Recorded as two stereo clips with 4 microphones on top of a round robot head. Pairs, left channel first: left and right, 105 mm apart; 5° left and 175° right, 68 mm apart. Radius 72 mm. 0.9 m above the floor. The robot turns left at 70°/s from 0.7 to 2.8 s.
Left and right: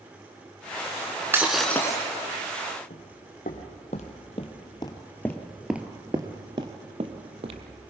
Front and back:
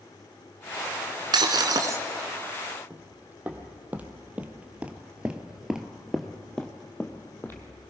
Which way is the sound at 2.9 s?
120° left.